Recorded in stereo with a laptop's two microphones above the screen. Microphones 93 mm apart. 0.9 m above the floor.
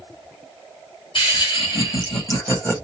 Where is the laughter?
65° left (ahead or behind), 1.7 m; by 2.8 s 30° left (ahead or behind), 1.5 m.